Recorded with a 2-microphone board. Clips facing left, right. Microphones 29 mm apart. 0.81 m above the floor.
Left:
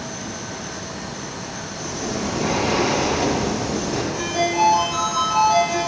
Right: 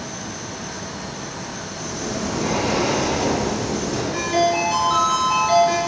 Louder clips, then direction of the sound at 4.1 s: Right 3 dB; 70° right (ahead or behind).